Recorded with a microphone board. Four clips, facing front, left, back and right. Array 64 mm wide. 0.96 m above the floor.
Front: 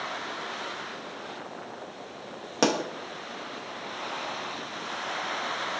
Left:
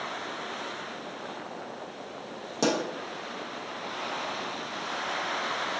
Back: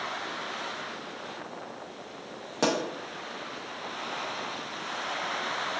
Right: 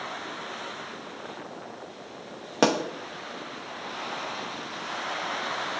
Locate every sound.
2.6 s a pop: 70° right, 0.6 m